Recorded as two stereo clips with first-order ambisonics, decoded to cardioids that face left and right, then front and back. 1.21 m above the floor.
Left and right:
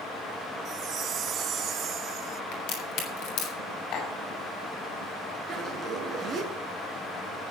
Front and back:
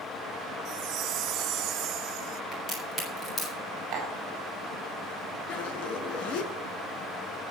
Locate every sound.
0.7 s a chime: 145° right, 0.5 m
2.5 s a crack: 70° left, 7 m
3.9 s tapping: 130° left, 5 m
5.5 s a zipper: 10° right, 4.5 m